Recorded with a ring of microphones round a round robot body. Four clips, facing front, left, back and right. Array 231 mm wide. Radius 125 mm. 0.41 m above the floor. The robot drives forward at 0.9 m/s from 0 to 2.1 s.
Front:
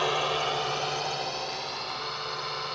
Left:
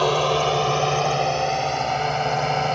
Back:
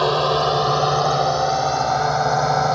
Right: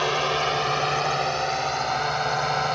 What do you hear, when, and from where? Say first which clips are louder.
0.0 s a drone: left 4 dB, back 10 dB; 140° left; by 2.8 s 155° left